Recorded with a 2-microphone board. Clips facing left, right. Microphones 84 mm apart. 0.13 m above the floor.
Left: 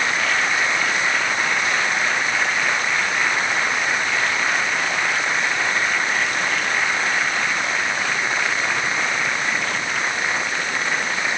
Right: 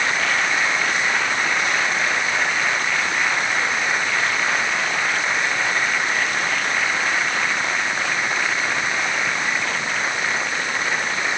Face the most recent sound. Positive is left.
No sound to turn to.